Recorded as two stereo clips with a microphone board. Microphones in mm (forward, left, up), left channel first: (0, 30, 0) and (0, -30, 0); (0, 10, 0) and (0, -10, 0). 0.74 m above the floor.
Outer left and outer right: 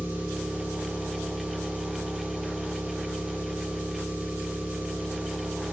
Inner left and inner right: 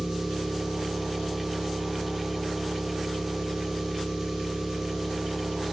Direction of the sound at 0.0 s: 25° right (ahead or behind).